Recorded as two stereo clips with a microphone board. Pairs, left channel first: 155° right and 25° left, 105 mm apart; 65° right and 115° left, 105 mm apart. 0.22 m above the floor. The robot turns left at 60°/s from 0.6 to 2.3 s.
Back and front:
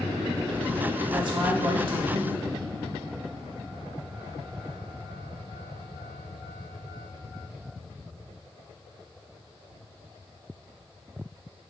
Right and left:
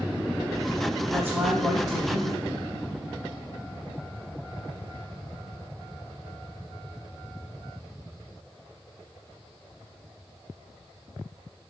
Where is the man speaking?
80° left, 1.0 m; by 2.6 s 10° left, 1.0 m.